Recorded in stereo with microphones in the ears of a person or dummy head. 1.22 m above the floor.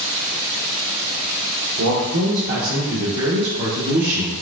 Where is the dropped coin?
I don't hear a dropped coin.